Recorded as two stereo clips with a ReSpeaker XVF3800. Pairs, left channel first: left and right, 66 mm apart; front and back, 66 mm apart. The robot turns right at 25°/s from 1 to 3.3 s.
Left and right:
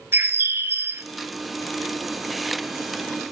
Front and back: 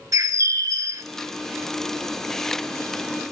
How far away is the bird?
About 0.8 m.